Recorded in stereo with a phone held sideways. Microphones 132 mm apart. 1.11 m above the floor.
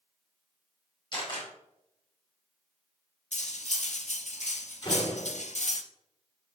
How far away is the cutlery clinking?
About 0.8 m.